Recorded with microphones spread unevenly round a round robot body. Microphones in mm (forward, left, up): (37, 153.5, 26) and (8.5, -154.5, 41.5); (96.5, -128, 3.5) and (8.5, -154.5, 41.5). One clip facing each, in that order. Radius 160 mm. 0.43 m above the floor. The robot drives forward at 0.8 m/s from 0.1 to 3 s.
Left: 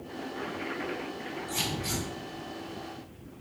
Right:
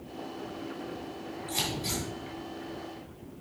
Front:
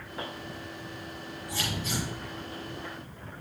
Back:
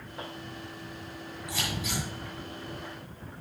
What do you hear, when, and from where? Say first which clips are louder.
1.5 s scissors: even, front 1 dB; 170° left, 4 m